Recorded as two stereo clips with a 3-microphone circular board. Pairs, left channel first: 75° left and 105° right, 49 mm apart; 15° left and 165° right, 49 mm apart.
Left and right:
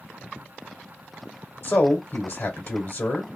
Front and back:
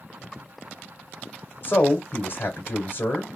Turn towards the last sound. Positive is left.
turn(degrees=50)